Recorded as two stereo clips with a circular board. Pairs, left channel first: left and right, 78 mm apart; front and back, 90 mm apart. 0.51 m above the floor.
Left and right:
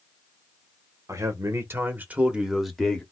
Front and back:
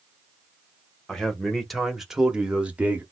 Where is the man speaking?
80° right, 1.1 m; by 3.0 s 150° left, 0.8 m.